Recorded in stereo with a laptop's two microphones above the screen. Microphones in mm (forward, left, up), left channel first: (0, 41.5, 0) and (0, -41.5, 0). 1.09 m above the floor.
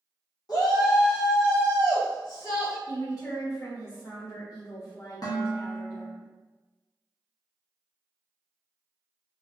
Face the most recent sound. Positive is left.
turn(degrees=50)  # may be behind; listen again after turning